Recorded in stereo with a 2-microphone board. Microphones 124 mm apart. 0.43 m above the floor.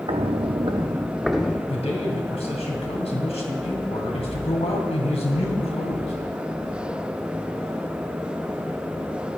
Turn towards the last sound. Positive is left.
turn(degrees=60)  # may be behind; listen again after turning